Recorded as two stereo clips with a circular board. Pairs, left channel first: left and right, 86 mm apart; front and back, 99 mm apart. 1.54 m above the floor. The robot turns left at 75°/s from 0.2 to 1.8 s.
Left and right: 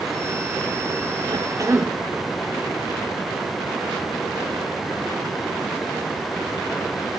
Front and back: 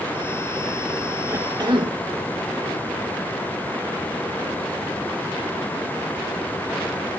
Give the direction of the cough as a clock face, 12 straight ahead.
4 o'clock.